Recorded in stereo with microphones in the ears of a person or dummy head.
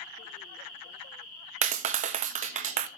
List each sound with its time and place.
1.6 s a clap: 40° right (ahead or behind), 1.0 m